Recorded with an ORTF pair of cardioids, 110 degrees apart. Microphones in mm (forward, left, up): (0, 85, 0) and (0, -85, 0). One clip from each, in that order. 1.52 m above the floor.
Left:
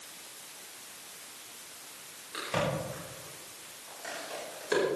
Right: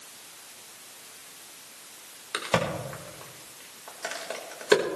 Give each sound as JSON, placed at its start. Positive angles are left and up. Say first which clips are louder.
{"t": 2.3, "sound": "a crack", "louder": "right 4 dB", "azimuth_deg": -65, "distance_m": 5.0}